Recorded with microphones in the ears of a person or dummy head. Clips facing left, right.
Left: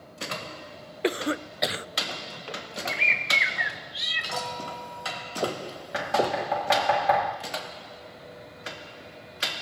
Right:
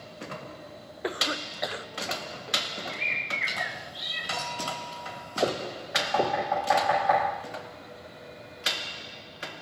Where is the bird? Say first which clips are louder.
Left 4 dB; 70° left (ahead or behind), 1.1 m.